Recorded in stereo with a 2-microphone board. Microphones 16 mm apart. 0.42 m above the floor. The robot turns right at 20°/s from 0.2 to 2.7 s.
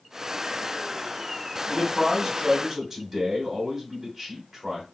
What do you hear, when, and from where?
1.7 s a man speaking: 30° right (ahead or behind), 1.5 m; by 4.8 s 20° right (ahead or behind), 1.5 m